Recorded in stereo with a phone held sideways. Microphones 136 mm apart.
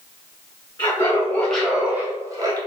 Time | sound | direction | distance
0.8 | laughter | 25° left (ahead or behind) | 0.9 m